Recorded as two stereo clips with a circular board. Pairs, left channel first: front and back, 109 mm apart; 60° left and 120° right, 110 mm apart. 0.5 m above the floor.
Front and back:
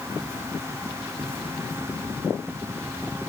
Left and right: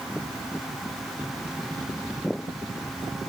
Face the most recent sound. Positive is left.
No sound to turn to.